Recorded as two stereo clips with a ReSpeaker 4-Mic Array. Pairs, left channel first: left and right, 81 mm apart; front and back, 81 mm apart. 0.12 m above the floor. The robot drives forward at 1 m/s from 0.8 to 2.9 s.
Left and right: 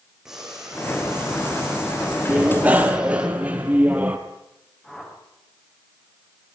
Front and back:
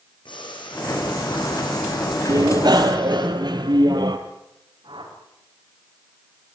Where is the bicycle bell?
155° right, 2 m; by 4.2 s 160° right, 2.5 m.